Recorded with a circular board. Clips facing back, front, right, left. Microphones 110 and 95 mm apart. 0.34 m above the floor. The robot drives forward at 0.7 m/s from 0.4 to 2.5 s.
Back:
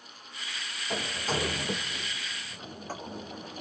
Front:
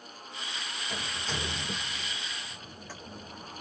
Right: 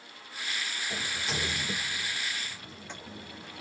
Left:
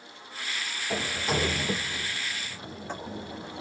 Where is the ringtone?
No ringtone in this recording.